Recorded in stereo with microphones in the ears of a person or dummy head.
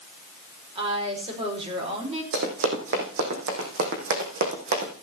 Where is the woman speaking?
35° right (ahead or behind), 5 m.